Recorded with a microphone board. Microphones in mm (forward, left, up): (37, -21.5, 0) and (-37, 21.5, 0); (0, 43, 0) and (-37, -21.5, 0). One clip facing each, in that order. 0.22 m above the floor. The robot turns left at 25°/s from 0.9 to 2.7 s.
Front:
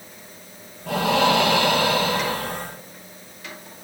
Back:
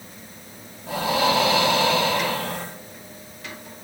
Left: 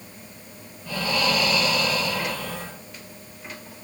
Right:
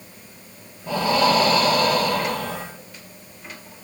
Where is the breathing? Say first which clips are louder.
Front 3 dB, right 6 dB; 50° right, 2 m; by 2.7 s 90° right, 2 m.